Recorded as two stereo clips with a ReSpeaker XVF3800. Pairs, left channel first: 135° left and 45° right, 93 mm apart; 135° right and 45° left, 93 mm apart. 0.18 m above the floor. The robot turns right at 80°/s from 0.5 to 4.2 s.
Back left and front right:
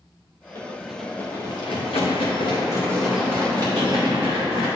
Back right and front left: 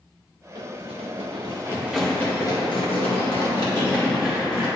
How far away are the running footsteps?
About 1.9 m.